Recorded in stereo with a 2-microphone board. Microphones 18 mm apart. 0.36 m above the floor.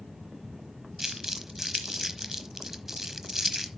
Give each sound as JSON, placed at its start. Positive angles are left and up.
{"t": 1.0, "sound": "crumpling", "side_deg": -20, "distance_m": 1.0}